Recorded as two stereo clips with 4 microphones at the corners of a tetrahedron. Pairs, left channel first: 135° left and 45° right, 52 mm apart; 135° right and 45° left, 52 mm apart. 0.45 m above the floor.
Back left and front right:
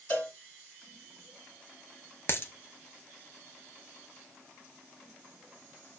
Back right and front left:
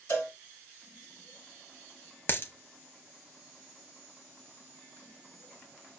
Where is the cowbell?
175° right, 1.8 m.